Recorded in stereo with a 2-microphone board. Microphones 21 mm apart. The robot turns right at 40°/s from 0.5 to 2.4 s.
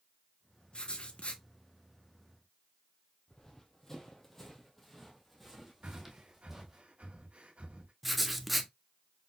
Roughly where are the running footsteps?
Left.